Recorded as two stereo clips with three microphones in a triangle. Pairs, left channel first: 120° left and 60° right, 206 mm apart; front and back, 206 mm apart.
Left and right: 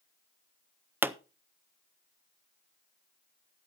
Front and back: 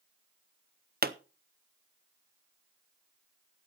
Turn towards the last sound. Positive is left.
turn(degrees=-140)